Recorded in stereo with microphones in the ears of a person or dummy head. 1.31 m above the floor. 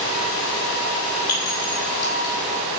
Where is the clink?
20° left (ahead or behind), 8 m.